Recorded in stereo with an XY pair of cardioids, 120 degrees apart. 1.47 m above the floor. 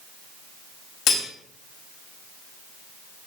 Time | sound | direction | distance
1.1 | cutlery clinking | 55° left | 2.5 m